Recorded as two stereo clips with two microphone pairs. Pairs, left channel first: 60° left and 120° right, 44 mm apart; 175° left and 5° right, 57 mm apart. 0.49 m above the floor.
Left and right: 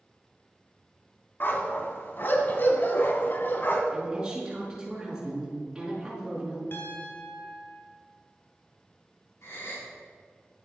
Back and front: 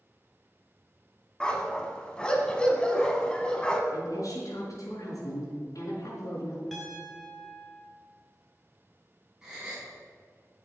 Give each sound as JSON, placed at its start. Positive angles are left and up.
{"t": 1.4, "sound": "a dog barking", "azimuth_deg": 105, "distance_m": 1.6}
{"t": 3.9, "sound": "a woman speaking", "azimuth_deg": 165, "distance_m": 5.5}
{"t": 6.7, "sound": "a piano", "azimuth_deg": 90, "distance_m": 3.0}
{"t": 9.4, "sound": "a gasp", "azimuth_deg": 75, "distance_m": 5.0}